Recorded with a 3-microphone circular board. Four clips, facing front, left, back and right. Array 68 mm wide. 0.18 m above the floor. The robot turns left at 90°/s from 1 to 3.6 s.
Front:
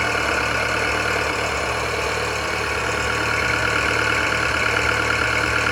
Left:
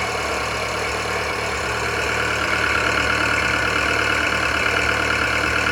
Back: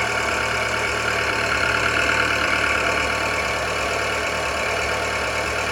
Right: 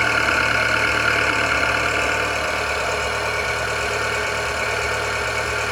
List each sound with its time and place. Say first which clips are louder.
0.0 s an engine running: right 5 dB, front 1 dB; 80° right, 1.2 m; by 5.7 s 45° left, 1.2 m